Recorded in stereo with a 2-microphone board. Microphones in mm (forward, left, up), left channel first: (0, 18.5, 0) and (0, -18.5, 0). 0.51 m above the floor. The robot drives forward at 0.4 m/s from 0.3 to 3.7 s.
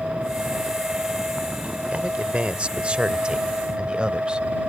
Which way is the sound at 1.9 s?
35° right (ahead or behind).